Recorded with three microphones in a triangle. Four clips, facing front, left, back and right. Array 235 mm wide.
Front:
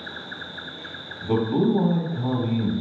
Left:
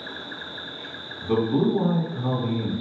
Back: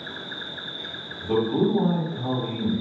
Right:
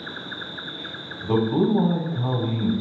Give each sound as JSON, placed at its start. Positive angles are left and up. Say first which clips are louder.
{"t": 0.0, "sound": "an insect", "louder": "right 1 dB, even", "azimuth_deg": -100, "distance_m": 1.2}
{"t": 1.2, "sound": "a man speaking", "louder": "right 1 dB, front 1 dB", "azimuth_deg": -65, "distance_m": 1.8}